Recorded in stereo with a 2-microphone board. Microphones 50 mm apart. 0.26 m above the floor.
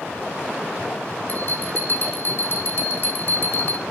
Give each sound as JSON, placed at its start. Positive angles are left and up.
{"t": 1.3, "sound": "a bell", "side_deg": 45, "distance_m": 5.5}